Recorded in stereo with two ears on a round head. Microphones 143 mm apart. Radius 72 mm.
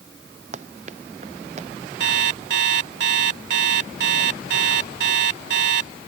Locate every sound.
0.5 s running footsteps: 45° right (ahead or behind)
2.0 s an alarm clock: 75° right (ahead or behind)